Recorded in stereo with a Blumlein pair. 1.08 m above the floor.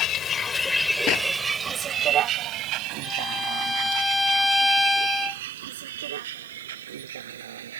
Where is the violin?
5° left.